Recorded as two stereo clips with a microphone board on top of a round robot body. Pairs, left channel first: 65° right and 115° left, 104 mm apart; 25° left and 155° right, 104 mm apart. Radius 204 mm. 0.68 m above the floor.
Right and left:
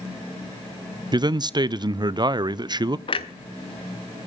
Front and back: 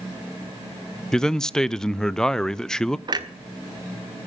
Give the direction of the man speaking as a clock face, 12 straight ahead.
9 o'clock.